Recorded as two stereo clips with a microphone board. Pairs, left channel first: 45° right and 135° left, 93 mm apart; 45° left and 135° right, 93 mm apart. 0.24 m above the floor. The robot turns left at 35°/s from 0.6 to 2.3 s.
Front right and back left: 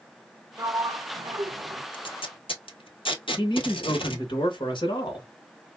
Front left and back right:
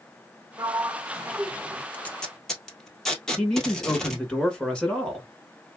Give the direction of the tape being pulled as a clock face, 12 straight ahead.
1 o'clock.